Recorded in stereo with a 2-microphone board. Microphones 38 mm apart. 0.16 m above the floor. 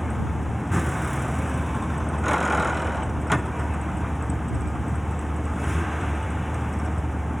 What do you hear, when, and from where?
0.0 s a vehicle: 5° right (ahead or behind)